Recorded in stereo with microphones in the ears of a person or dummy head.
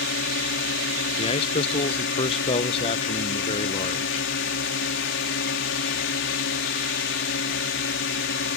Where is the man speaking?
30° left (ahead or behind).